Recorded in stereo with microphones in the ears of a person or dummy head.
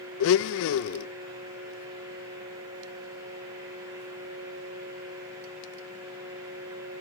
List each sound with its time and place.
0.2 s a blender: 65° left (ahead or behind), 0.6 m